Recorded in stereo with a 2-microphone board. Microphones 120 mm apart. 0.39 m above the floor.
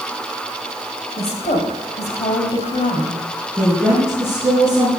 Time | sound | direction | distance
1.2 | a woman speaking | 60° left (ahead or behind) | 2 m
3.6 | a woman speaking | 5° right (ahead or behind) | 4.5 m